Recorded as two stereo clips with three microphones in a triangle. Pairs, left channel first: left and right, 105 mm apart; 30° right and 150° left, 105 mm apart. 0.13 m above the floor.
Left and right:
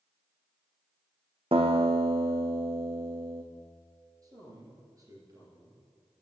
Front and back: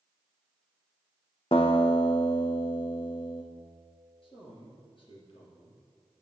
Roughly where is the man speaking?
Ahead right.